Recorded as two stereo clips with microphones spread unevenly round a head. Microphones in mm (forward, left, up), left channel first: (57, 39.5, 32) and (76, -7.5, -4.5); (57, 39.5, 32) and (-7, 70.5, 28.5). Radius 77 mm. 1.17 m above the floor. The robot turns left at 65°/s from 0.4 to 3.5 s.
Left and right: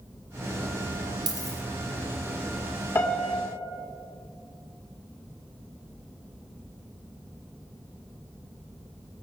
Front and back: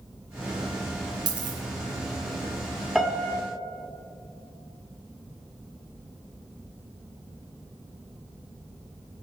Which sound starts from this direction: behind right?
A dropped coin, at 1.3 s.